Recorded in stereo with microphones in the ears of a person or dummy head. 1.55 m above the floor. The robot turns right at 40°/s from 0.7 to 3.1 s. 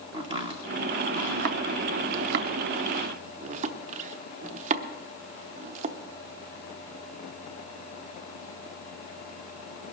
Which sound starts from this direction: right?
Chopping, at 0.1 s.